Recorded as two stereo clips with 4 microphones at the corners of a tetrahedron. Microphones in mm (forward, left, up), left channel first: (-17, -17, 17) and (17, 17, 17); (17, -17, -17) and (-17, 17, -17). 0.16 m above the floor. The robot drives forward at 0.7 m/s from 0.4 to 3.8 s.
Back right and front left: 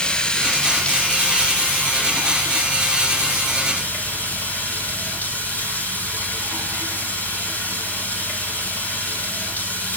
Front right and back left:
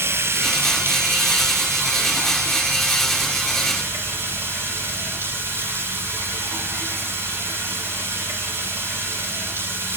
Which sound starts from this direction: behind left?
Running water, at 0.0 s.